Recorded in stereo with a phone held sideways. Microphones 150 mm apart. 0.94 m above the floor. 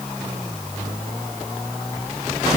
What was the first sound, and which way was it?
Only background noise.